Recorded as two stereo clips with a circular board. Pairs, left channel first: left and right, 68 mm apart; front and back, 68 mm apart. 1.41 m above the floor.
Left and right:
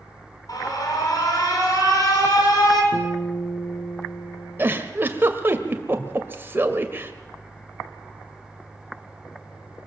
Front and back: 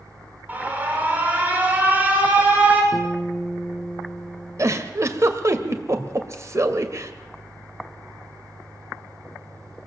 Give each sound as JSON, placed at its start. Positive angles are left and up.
{"t": 0.5, "sound": "an alarm", "azimuth_deg": 115, "distance_m": 5.5}
{"t": 2.9, "sound": "a guitar", "azimuth_deg": 80, "distance_m": 3.0}
{"t": 4.6, "sound": "a giggle", "azimuth_deg": -145, "distance_m": 1.9}